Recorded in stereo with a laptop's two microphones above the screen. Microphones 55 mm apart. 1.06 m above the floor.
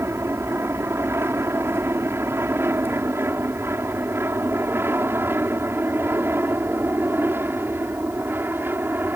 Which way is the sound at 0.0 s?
50° right (ahead or behind).